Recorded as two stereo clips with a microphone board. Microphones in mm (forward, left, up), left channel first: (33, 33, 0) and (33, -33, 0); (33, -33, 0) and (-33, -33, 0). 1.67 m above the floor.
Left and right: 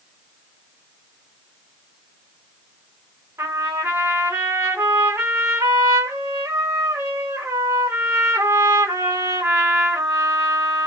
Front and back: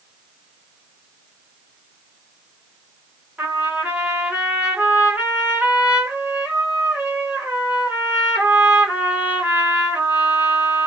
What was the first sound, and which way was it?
A trumpet, 115° right.